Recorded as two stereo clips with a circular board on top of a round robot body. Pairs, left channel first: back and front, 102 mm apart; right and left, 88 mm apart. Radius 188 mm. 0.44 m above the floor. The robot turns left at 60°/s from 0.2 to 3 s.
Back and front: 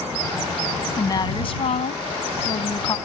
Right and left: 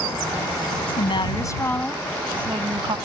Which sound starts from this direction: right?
A woman speaking, at 0.8 s.